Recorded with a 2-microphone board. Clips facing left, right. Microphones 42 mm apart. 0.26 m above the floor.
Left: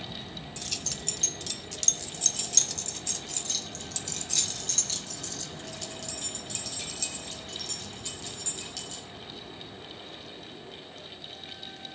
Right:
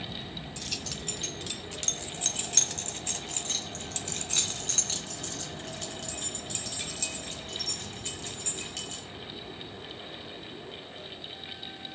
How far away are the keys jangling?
About 0.9 m.